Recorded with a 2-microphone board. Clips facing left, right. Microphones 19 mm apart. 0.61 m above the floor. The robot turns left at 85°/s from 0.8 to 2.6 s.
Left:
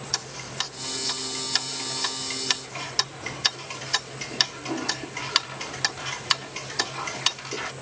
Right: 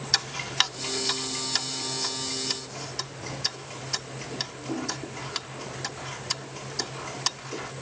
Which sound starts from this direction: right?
Ticking, at 0.1 s.